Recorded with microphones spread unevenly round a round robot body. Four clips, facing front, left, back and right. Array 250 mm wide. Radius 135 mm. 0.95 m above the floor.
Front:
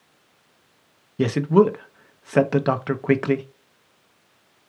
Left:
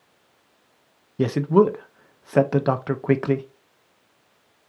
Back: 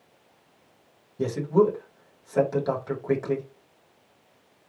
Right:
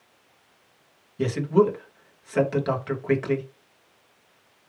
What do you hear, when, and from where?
1.2 s a man speaking: 45° left, 0.8 m